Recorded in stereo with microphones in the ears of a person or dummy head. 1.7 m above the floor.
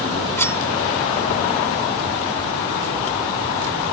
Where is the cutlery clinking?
10° left (ahead or behind).